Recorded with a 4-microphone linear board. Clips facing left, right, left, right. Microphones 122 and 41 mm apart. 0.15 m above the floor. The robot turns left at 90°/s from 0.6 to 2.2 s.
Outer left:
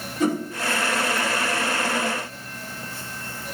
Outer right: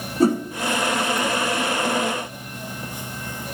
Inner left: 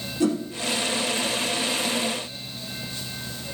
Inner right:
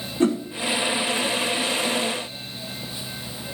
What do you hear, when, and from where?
0.2 s a whoosh: 35° right (ahead or behind), 1.0 m